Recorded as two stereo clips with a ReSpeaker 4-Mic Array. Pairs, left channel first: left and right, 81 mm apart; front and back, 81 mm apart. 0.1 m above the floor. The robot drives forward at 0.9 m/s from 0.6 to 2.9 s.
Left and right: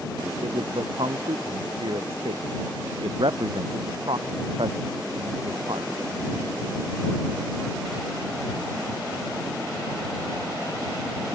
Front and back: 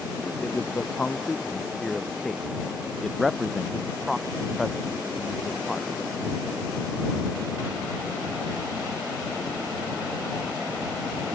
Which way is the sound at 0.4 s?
75° right.